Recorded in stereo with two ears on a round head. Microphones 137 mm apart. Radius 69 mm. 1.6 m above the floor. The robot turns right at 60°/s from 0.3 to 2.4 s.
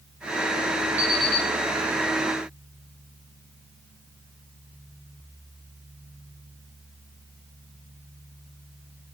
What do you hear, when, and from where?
1.0 s an alarm clock: 10° right, 2.5 m; by 1.5 s 20° left, 2.5 m